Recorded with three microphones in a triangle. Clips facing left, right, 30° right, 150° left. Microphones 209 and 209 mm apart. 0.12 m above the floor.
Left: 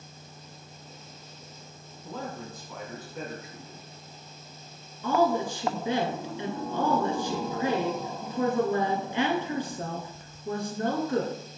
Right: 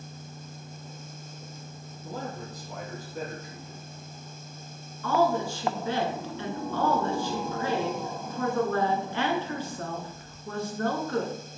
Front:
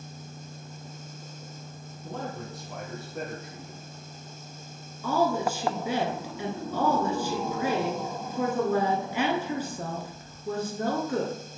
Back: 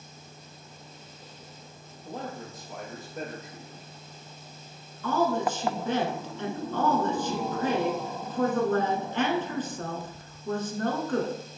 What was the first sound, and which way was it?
A man speaking, 40° right.